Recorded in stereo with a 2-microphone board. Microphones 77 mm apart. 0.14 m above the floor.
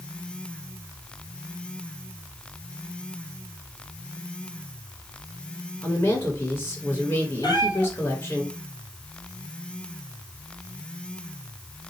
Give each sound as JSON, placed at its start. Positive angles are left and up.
{"t": 5.8, "sound": "a woman speaking", "side_deg": 25, "distance_m": 1.5}
{"t": 7.4, "sound": "a cat meowing", "side_deg": 70, "distance_m": 1.3}